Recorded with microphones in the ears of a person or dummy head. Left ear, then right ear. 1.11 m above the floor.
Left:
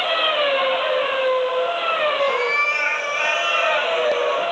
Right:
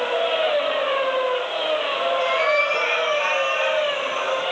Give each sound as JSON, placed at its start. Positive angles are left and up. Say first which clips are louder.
{"t": 2.2, "sound": "a cat meowing", "louder": "even", "side_deg": 5, "distance_m": 3.5}